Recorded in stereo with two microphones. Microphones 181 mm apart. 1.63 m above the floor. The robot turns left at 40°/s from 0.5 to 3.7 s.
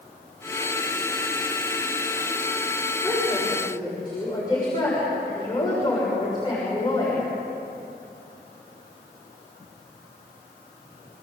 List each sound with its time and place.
3.0 s a woman speaking: 5° right (ahead or behind), 7 m; by 7.2 s 25° left (ahead or behind), 7 m